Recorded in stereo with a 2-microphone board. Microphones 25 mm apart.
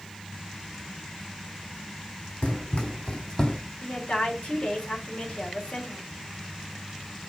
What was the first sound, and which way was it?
Running footsteps, 60° left (ahead or behind).